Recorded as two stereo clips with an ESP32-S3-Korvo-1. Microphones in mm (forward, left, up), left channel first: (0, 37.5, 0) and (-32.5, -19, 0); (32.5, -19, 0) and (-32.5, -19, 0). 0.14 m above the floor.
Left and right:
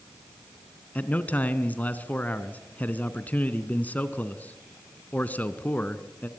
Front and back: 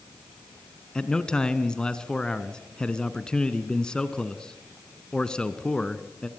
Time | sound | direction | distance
0.9 | a man speaking | 60° left | 1.2 m